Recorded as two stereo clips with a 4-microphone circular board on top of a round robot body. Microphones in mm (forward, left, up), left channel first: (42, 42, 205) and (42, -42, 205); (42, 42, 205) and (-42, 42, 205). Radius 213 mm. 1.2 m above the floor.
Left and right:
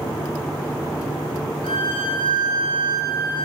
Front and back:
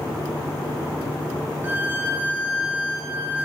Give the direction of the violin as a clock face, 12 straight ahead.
8 o'clock.